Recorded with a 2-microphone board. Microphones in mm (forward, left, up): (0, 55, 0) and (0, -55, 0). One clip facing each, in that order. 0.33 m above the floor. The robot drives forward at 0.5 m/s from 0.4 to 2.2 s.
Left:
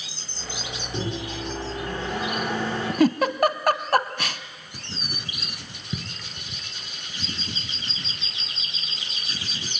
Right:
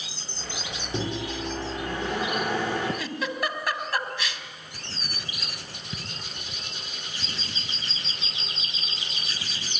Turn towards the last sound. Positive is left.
turn(degrees=20)  # may be behind; listen again after turning